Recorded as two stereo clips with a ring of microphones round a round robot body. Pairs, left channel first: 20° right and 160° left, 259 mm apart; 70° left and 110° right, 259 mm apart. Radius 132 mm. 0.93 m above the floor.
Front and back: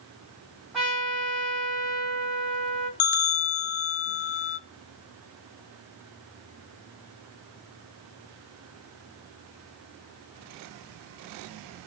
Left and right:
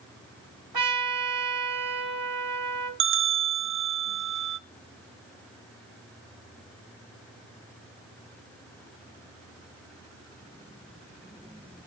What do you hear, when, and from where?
0.7 s a trumpet: 110° right, 3 m
3.0 s a bell: 65° right, 0.7 m